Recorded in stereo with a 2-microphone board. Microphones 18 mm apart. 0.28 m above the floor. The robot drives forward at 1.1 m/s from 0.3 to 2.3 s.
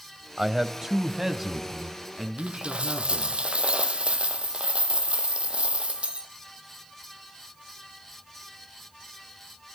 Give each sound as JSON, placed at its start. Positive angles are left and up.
{"t": 0.4, "sound": "a man speaking", "side_deg": -25, "distance_m": 1.2}
{"t": 2.4, "sound": "a dropped coin", "side_deg": -70, "distance_m": 1.0}